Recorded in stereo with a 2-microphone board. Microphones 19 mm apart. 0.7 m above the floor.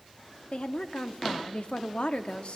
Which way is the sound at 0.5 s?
55° left (ahead or behind).